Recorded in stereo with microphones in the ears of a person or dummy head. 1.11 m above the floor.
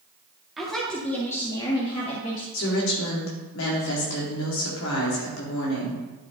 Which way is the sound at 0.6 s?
Centre (ahead or behind).